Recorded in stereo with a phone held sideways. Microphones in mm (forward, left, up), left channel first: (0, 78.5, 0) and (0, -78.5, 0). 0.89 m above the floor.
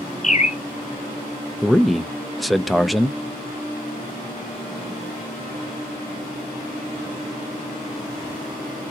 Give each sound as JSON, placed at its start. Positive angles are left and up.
{"t": 0.2, "sound": "a bird", "side_deg": 50, "distance_m": 0.6}
{"t": 1.6, "sound": "a man speaking", "side_deg": 0, "distance_m": 0.5}